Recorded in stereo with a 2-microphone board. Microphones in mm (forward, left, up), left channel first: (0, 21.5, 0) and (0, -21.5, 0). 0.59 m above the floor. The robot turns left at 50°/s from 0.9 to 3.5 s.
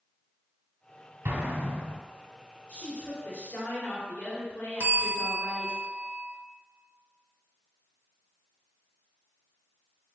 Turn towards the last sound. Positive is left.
turn(degrees=-55)  # may be behind; listen again after turning